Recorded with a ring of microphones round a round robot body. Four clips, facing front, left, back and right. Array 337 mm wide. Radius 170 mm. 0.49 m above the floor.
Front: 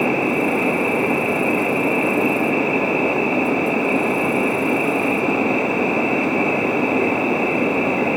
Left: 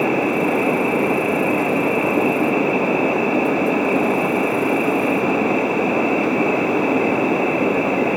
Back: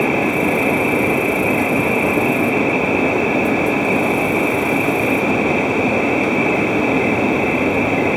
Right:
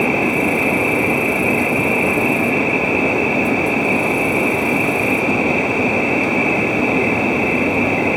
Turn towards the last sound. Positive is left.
turn(degrees=-130)